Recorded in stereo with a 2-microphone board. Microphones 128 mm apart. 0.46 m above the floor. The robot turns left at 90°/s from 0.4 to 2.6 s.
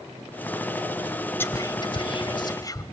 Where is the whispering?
15° left (ahead or behind), 1.0 m; by 2.8 s 30° left (ahead or behind), 1.0 m.